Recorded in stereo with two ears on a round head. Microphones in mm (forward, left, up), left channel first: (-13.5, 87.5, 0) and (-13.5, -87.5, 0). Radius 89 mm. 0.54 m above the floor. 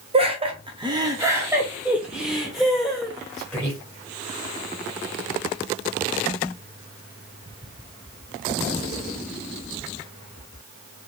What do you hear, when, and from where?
0.1 s laughter: 30° right (ahead or behind), 0.8 m; by 3.8 s 5° left (ahead or behind), 1.8 m